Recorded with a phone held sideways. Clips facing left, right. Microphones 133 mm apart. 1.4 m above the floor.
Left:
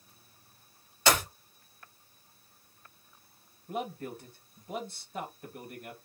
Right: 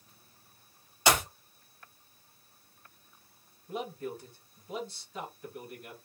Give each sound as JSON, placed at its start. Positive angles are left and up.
{"t": 1.1, "sound": "a clap", "side_deg": -15, "distance_m": 1.5}
{"t": 3.7, "sound": "a man speaking", "side_deg": 55, "distance_m": 1.9}